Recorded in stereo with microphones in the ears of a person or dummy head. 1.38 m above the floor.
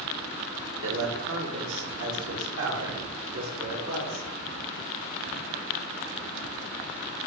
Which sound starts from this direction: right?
A man speaking, at 0.8 s.